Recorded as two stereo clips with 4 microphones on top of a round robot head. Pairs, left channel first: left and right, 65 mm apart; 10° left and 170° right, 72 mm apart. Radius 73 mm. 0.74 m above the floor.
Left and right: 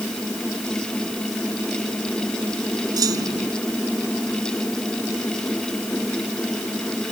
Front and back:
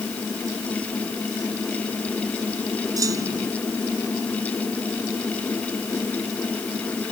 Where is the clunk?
125° right.